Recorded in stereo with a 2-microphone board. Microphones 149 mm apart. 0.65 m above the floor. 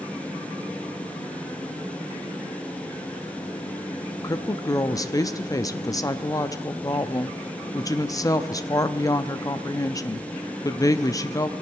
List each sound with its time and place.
4.2 s a woman speaking: 25° left (ahead or behind), 0.5 m